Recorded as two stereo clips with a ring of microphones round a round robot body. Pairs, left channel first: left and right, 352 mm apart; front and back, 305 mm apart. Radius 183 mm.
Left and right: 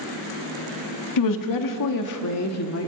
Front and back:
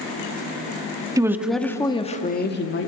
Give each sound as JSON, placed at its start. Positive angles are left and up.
{"t": 1.2, "sound": "a woman speaking", "azimuth_deg": 105, "distance_m": 1.7}